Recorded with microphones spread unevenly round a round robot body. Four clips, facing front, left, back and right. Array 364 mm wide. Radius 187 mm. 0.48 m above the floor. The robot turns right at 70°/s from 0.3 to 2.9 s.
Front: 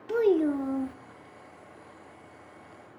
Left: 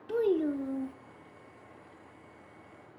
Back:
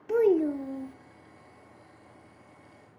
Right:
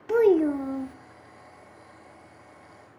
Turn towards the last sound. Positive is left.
turn(degrees=120)